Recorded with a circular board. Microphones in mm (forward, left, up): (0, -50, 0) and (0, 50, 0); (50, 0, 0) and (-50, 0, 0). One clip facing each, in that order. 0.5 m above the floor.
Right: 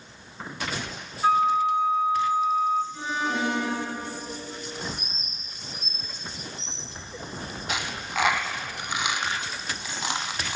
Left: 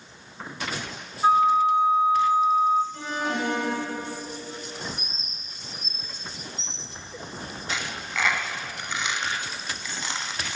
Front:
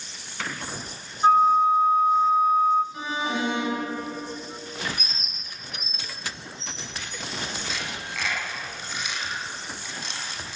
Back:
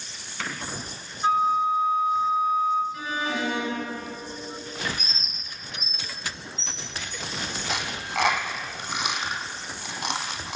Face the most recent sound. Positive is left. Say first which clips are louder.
# right 1 dB, back 4 dB
turn(degrees=-160)